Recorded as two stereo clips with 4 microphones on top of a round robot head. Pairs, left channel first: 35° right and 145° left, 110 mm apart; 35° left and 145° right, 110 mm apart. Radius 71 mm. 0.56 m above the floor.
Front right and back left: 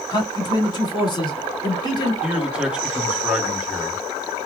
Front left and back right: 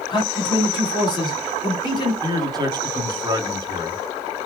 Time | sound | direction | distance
0.1 | a man speaking | straight ahead | 1.9 m
2.2 | a man speaking | 145° right | 1.3 m